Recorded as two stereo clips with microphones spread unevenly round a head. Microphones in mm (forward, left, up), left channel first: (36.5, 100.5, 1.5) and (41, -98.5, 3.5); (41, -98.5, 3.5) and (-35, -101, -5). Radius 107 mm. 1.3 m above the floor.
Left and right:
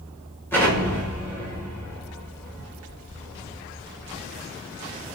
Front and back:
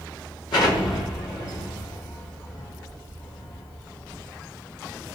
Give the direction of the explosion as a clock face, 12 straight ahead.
12 o'clock.